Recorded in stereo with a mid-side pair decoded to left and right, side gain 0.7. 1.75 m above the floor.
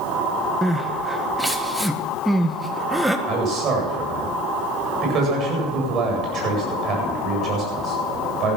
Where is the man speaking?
45° right, 8.5 m.